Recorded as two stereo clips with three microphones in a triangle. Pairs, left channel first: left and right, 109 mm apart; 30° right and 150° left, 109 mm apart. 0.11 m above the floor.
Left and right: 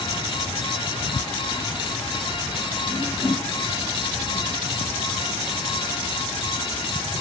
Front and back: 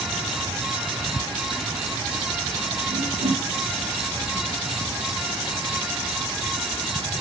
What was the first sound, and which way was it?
A whoosh, 170° left.